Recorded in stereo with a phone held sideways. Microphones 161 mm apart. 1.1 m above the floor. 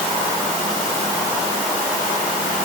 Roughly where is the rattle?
I don't hear a rattle.